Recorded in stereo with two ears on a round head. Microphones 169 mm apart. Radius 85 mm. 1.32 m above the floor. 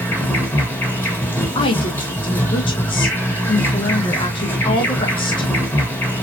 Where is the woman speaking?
25° left (ahead or behind), 0.9 m.